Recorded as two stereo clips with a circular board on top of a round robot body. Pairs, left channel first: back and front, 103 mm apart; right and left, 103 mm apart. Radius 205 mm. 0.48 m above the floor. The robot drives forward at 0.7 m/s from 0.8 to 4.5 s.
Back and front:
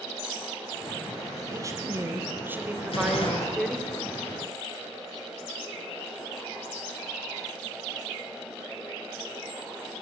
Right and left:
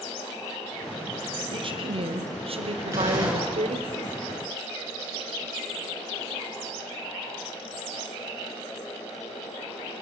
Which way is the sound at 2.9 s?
155° left.